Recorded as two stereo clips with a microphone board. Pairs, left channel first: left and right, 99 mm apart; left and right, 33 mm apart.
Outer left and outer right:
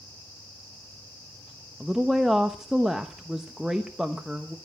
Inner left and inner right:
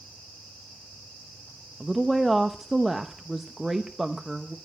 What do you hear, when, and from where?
1.8 s a woman speaking: 5° right (ahead or behind), 0.8 m